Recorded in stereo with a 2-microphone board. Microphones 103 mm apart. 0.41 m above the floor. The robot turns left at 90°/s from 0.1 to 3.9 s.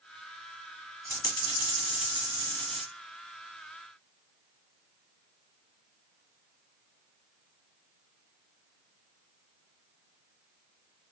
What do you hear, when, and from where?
1.1 s a dropped coin: 155° left, 1.4 m; by 2.8 s 5° right, 1.4 m